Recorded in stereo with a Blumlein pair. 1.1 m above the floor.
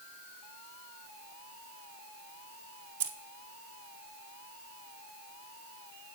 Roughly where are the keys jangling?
Ahead right.